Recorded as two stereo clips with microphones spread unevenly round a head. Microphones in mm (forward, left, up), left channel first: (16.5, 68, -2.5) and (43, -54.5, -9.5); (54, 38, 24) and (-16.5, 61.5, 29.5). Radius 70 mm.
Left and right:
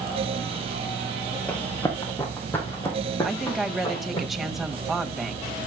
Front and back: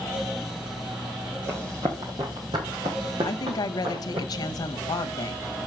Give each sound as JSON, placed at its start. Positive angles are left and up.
{"t": 1.5, "sound": "running footsteps", "azimuth_deg": 170, "distance_m": 2.0}
{"t": 3.2, "sound": "a woman speaking", "azimuth_deg": 10, "distance_m": 1.3}